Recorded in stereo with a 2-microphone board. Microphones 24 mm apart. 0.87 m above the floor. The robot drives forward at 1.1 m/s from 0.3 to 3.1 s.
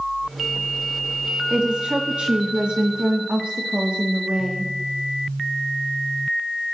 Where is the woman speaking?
50° right (ahead or behind), 2 m; by 4.7 s 55° right (ahead or behind), 2.0 m.